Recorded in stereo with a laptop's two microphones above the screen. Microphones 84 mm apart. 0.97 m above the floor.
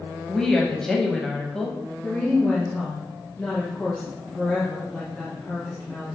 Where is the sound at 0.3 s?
5° left (ahead or behind), 0.7 m.